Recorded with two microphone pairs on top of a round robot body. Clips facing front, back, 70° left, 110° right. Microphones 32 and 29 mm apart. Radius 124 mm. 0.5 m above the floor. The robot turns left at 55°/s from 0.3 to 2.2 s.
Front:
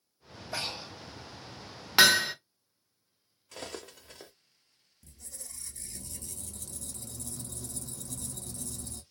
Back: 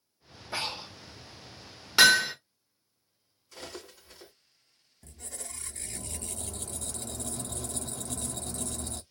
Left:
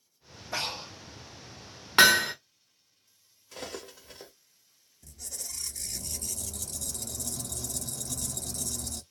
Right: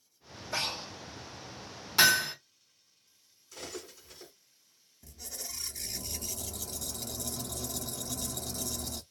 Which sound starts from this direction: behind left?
Breathing, at 0.5 s.